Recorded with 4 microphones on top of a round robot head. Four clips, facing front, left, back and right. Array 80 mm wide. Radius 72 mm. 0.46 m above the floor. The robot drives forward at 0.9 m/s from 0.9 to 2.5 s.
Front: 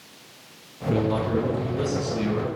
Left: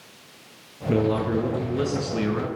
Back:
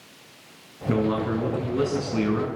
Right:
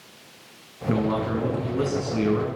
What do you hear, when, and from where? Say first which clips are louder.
0.9 s a man speaking: left 2 dB, even; 135° right, 5.5 m; by 2.5 s 140° right, 6.5 m